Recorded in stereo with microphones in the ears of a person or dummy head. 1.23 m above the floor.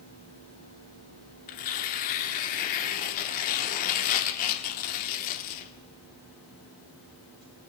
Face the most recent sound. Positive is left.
turn(degrees=45)  # may be behind; listen again after turning